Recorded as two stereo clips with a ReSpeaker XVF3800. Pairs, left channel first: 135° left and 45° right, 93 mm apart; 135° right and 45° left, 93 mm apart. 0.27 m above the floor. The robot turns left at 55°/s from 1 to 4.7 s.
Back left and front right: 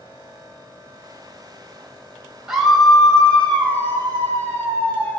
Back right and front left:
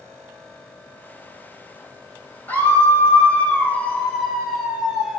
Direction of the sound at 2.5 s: 120° right.